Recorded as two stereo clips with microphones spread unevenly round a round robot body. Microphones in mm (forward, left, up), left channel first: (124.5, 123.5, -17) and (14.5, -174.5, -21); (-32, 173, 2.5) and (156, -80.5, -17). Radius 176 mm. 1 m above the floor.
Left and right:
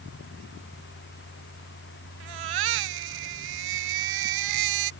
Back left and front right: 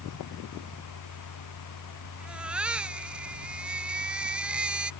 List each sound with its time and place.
2.2 s a baby crying: 140° right